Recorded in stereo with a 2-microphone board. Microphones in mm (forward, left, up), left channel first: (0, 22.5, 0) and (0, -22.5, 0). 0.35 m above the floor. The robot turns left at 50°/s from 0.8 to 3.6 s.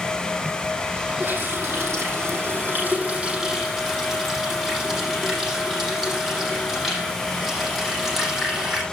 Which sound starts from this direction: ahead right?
A running tap, at 1.2 s.